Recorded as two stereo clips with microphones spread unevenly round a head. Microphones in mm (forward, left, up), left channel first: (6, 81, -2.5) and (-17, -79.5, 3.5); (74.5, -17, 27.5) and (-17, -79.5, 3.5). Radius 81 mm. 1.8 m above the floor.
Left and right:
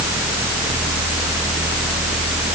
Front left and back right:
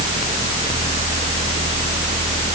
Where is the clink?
I don't hear a clink.